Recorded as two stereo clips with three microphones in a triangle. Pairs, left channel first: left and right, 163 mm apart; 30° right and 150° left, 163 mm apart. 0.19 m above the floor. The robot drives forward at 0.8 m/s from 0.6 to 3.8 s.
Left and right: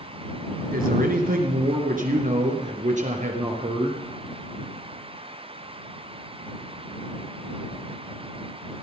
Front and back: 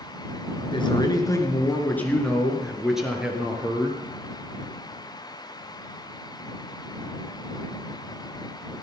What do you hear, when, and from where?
0.7 s a man speaking: 85° right, 3 m; by 4.0 s 130° right, 3.5 m